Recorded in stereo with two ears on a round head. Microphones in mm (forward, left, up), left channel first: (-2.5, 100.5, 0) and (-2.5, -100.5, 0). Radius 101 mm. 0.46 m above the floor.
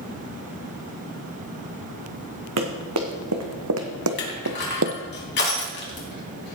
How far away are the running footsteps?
About 2.5 m.